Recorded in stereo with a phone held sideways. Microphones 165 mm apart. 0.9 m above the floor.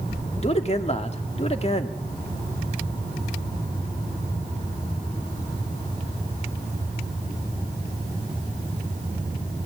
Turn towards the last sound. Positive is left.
turn(degrees=40)  # may be behind; listen again after turning